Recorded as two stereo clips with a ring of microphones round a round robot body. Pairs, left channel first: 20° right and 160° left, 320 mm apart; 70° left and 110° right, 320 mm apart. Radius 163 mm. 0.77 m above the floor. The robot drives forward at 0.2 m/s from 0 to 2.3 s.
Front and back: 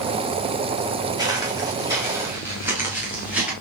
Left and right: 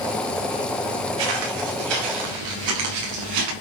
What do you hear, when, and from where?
1.2 s footsteps: 125° right, 6 m; by 3.5 s 115° right, 7 m